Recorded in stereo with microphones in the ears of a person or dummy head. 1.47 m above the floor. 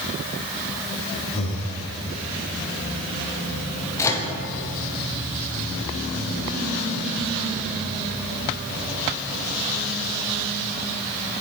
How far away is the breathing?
About 1.1 m.